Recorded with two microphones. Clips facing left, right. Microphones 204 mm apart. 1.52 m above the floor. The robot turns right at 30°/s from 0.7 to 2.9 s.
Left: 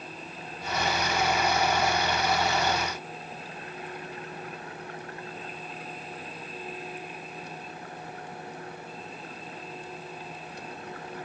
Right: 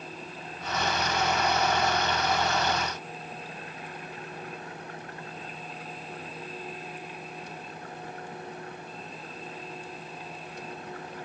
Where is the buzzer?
No buzzer in this recording.